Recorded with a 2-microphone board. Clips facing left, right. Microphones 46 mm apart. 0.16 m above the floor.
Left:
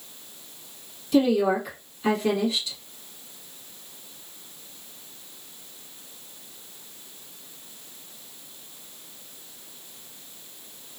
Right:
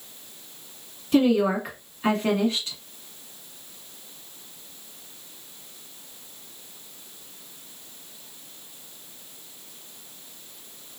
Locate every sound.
1.1 s a woman speaking: 40° right (ahead or behind), 1.4 m